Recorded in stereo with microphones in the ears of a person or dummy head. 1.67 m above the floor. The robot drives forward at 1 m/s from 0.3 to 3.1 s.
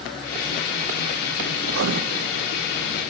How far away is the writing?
About 0.5 m.